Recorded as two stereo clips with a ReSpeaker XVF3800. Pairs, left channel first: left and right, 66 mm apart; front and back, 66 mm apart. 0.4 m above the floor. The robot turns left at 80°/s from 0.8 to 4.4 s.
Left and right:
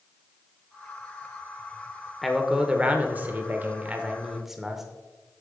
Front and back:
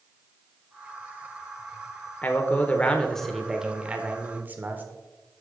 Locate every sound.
2.2 s a man speaking: 5° left, 0.8 m; by 4.8 s 170° right, 0.8 m